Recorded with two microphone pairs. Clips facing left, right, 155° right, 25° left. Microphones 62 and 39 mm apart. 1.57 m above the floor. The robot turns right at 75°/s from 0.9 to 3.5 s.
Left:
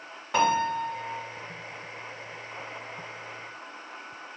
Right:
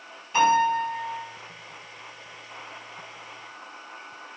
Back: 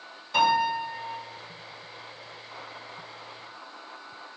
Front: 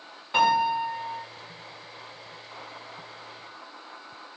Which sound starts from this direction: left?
A piano, at 0.3 s.